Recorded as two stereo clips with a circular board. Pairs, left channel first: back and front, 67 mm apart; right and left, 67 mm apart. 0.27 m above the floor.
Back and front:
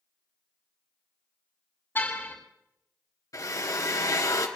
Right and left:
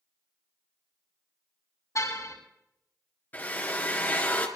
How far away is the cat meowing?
I don't hear a cat meowing.